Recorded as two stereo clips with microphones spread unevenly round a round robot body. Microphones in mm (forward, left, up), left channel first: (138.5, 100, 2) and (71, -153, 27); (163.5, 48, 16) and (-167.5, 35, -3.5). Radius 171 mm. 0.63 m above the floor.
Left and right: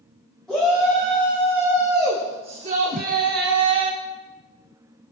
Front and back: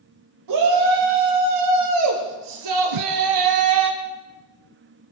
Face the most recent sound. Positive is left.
turn(degrees=-165)